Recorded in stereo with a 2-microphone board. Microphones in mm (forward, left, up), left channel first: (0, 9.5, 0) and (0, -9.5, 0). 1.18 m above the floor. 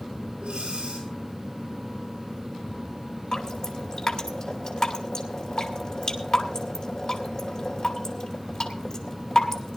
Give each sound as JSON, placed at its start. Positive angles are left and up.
{"t": 0.4, "sound": "breathing", "side_deg": -50, "distance_m": 6.5}
{"t": 3.3, "sound": "dripping", "side_deg": 40, "distance_m": 2.5}